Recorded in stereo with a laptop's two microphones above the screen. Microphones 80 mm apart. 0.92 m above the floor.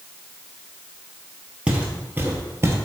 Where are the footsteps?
15° right (ahead or behind), 1.4 m; by 2.8 s 35° right (ahead or behind), 1.4 m.